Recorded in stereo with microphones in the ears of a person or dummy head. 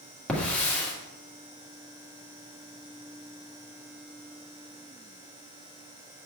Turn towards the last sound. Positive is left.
turn(degrees=5)  # may be behind; listen again after turning